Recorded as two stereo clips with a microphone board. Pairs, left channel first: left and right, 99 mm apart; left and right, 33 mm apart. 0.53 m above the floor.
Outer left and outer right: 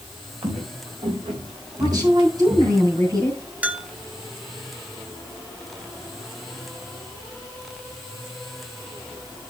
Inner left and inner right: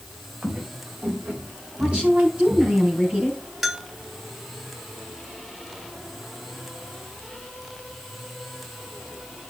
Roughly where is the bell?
Centre.